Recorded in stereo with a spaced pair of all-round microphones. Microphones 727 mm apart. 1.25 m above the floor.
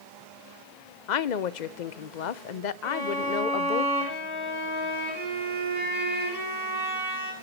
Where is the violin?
75° right (ahead or behind), 6.5 m.